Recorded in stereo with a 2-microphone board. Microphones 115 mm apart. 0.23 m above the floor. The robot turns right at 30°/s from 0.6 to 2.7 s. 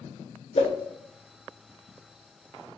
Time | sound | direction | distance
0.6 | a whoosh | 65° left (ahead or behind) | 0.7 m